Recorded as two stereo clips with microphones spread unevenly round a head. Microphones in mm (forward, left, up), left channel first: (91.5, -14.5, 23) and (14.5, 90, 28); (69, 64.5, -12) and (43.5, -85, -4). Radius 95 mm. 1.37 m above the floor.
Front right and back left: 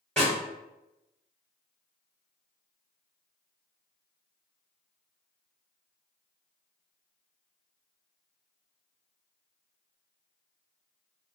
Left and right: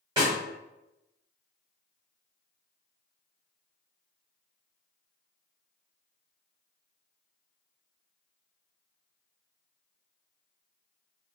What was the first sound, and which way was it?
A snare drum, 140° right.